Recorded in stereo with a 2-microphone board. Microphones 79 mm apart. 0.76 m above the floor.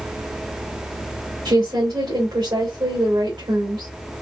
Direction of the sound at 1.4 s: 70° right (ahead or behind).